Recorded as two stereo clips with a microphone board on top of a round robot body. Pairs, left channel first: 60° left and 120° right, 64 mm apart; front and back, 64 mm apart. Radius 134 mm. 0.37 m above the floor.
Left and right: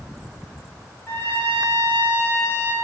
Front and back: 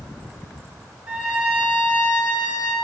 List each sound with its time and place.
1.1 s a trumpet: 115° left, 2.5 m